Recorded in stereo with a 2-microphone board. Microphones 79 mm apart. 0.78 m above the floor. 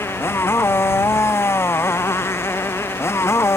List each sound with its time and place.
0.0 s a motorcycle: 35° left (ahead or behind)